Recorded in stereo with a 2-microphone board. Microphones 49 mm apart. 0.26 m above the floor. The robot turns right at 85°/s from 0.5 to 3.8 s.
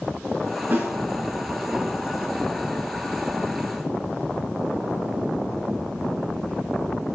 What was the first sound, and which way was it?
A snare drum, 45° right (ahead or behind).